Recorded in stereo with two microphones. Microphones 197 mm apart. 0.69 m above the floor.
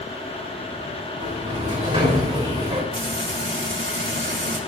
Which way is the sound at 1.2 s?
25° right (ahead or behind).